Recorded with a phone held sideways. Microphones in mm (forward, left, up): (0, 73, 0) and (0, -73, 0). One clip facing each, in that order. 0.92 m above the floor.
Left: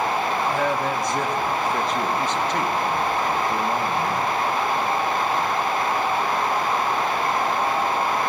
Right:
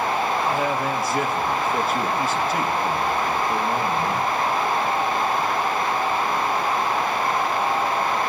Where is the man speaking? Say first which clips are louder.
Even; 5° right (ahead or behind), 1.0 m.